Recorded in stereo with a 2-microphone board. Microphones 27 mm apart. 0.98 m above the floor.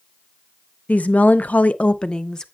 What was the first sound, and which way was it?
A woman speaking, 65° left (ahead or behind).